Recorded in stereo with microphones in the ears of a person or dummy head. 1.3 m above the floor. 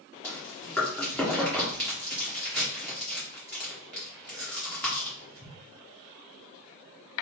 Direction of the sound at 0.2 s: 10° left (ahead or behind).